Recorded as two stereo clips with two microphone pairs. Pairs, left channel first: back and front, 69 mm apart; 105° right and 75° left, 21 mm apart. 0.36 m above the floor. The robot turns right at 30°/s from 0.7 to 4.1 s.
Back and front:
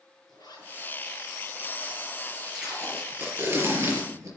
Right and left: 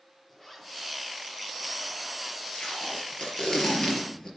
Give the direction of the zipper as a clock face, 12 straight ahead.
6 o'clock.